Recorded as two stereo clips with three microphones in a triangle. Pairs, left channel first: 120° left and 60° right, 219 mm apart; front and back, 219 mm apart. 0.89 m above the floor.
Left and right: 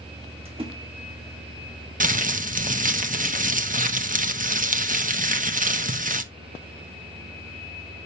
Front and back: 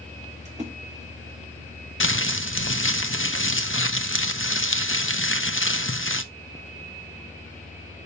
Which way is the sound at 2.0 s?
10° right.